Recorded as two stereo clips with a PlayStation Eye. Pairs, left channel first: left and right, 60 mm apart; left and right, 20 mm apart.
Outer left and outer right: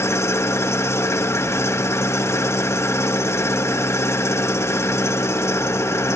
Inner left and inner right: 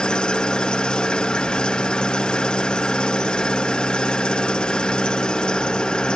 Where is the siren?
No siren in this recording.